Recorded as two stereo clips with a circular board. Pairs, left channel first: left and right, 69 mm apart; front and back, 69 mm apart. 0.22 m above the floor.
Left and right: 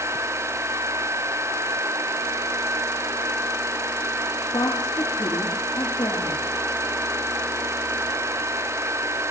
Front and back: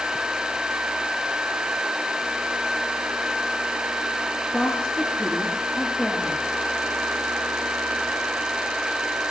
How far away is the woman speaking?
About 4 m.